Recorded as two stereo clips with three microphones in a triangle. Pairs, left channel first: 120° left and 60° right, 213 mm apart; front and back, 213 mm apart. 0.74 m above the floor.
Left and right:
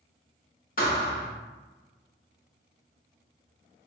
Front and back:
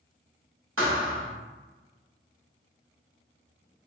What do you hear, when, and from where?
0.8 s a thud: 165° left, 1.1 m